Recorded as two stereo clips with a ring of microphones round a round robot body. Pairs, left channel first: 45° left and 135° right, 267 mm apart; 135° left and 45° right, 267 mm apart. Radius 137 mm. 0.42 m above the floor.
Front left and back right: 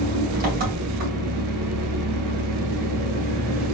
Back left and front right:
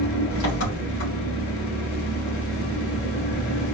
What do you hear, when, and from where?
0.0 s an engine running: 170° left, 2 m